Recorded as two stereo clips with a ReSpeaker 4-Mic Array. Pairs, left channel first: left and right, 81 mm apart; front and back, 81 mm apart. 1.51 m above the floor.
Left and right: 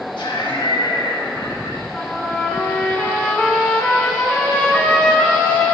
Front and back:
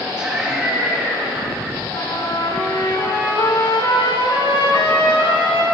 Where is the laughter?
100° left, 3 m.